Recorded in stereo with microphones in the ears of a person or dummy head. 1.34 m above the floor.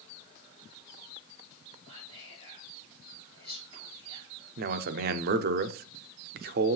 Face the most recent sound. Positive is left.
turn(degrees=-50)  # may be behind; listen again after turning